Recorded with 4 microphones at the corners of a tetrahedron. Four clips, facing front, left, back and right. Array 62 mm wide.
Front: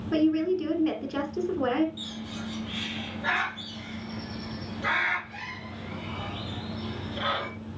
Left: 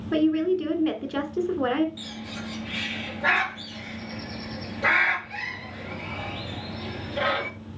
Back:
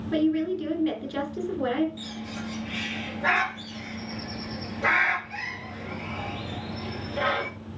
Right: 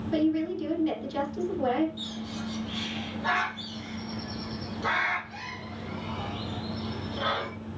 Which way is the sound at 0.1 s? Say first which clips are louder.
Left 5 dB, front 1 dB; 65° left.